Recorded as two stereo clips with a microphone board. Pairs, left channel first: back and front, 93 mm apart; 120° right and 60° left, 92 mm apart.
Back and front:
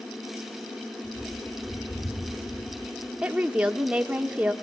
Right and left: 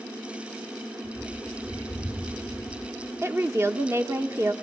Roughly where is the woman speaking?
Ahead left.